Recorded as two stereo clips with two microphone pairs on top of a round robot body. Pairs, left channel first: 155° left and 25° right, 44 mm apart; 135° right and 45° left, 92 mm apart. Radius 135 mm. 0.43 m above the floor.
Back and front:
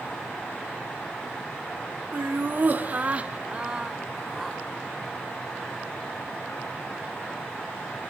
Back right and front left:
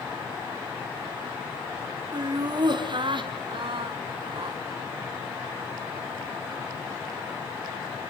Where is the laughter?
5° left, 2 m; by 4.6 s 65° left, 1.8 m.